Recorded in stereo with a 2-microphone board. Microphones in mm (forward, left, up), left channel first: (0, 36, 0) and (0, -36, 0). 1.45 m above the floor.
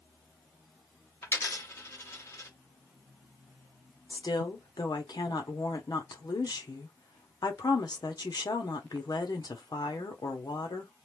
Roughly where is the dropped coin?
Left.